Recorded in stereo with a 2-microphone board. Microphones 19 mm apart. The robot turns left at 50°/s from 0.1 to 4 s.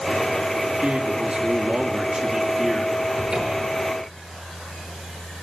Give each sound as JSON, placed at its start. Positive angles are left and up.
{"t": 0.7, "sound": "a man speaking", "azimuth_deg": -45, "distance_m": 2.5}
{"t": 3.2, "sound": "a cupboard door", "azimuth_deg": -50, "distance_m": 7.5}